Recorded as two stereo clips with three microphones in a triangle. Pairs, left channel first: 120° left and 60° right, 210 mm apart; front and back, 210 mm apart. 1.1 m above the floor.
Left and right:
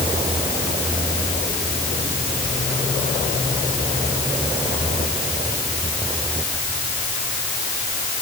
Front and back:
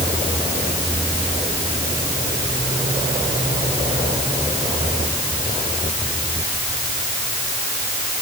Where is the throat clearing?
I don't hear throat clearing.